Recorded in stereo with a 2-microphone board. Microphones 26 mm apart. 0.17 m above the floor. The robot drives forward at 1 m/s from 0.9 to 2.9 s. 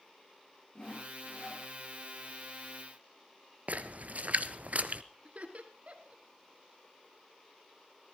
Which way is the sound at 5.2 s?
55° right (ahead or behind).